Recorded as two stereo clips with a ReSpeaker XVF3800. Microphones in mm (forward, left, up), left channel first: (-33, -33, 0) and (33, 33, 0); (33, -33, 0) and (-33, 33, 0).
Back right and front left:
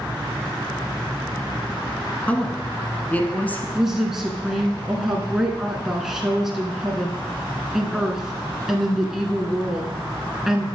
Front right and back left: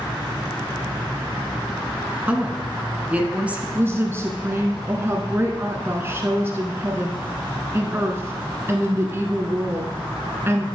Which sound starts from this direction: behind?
A woman speaking, at 2.3 s.